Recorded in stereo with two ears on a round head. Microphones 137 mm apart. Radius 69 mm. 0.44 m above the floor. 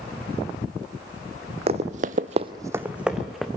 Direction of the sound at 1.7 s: 40° right (ahead or behind).